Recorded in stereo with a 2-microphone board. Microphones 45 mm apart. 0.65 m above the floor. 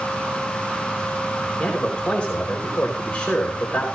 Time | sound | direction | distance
1.6 | a man speaking | 25° left (ahead or behind) | 3.5 m